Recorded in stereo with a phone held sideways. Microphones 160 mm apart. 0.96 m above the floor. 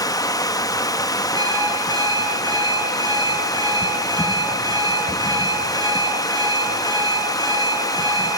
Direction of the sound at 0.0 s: 25° left (ahead or behind).